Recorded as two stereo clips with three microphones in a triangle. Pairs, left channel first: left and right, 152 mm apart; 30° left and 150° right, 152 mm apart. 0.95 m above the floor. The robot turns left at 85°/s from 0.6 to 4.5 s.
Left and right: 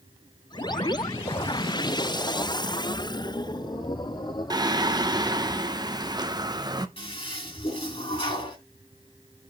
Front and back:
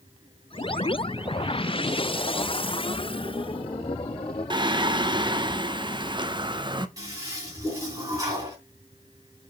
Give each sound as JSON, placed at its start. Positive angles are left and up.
{"t": 4.5, "sound": "singing", "azimuth_deg": -130, "distance_m": 0.6}
{"t": 7.0, "sound": "a toilet flushing", "azimuth_deg": 145, "distance_m": 3.5}